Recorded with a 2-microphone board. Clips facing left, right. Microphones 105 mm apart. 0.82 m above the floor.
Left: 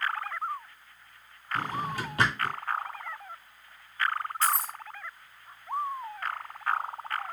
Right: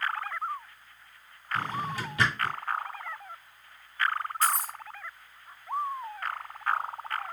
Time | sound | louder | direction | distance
1.6 | a drawer | even | 45° left (ahead or behind) | 1.5 m
4.4 | keys jangling | even | 30° left (ahead or behind) | 1.0 m